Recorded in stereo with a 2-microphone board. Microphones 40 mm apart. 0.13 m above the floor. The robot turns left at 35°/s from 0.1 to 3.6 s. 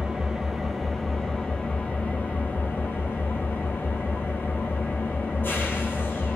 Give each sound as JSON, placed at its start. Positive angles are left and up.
{"t": 0.0, "sound": "an engine running", "azimuth_deg": -160, "distance_m": 0.8}